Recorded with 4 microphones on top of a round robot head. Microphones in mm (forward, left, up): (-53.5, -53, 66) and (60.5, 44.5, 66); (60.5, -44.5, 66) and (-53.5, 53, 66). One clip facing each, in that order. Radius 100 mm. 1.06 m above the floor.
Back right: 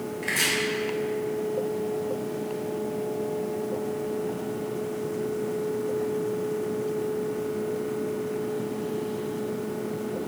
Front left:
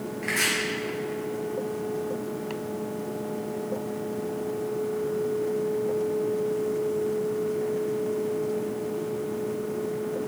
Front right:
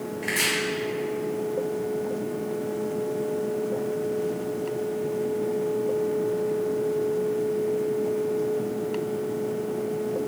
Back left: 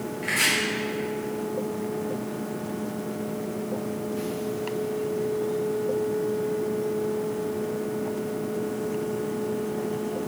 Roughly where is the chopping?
Right.